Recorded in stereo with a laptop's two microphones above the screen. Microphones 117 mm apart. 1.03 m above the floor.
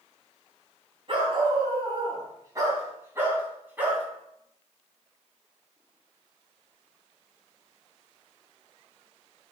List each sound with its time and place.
1.1 s a dog barking: 45° right (ahead or behind), 3 m; by 4.0 s 10° right (ahead or behind), 3.5 m